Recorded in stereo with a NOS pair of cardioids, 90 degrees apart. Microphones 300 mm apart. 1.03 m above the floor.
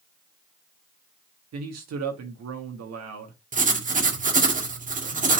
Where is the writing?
25° right, 1.8 m.